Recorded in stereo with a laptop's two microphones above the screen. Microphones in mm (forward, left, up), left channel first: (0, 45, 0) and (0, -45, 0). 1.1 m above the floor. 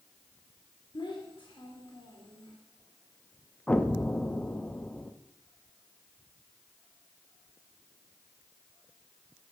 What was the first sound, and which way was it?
A child speaking, 65° left (ahead or behind).